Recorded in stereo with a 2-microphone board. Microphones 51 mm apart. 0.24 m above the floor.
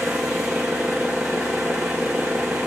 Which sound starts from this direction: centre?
An engine running, at 0.0 s.